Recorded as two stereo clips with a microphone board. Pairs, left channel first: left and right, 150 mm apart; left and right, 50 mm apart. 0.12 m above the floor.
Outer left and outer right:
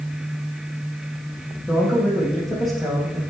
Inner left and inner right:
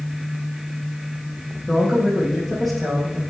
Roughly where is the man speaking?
Centre.